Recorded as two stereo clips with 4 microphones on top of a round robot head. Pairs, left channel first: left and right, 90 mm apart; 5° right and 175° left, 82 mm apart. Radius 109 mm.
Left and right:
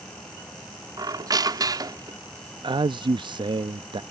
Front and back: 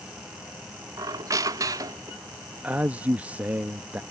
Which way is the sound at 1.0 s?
135° right.